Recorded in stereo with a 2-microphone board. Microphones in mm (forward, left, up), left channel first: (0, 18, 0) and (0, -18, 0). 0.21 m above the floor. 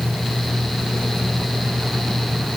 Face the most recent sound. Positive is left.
No sound to turn to.